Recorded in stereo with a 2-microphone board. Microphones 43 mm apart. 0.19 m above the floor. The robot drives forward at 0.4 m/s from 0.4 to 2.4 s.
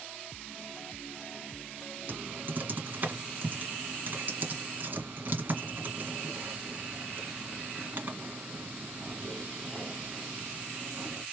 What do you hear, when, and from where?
2.1 s typing on a keyboard: 45° right (ahead or behind), 2 m